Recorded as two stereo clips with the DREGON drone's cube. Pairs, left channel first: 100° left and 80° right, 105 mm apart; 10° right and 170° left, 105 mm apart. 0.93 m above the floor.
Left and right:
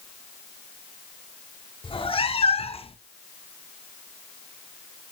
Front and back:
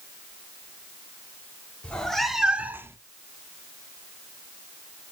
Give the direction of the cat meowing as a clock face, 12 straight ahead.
10 o'clock.